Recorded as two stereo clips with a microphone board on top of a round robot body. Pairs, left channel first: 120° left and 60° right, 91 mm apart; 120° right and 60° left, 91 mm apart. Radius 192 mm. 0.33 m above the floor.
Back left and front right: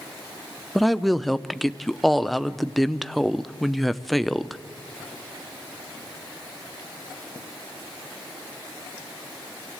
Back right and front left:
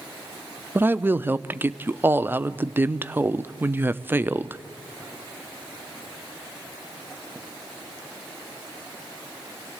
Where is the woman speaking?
30° left, 0.9 m.